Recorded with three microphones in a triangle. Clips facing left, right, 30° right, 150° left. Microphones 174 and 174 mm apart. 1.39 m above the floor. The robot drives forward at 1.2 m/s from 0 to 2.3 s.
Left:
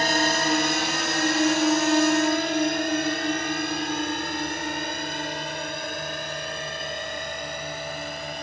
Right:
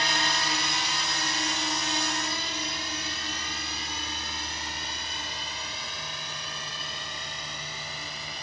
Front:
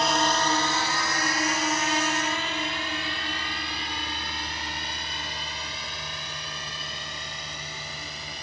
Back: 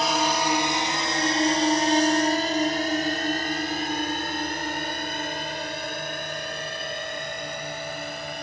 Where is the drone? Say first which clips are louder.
Left 8 dB, back 1 dB; 65° left; by 8.4 s 120° left.